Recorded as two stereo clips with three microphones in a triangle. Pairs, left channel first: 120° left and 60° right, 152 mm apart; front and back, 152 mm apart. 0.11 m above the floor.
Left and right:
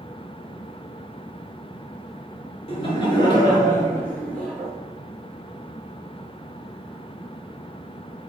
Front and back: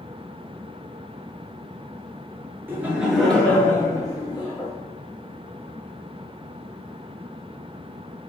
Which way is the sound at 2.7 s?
110° left.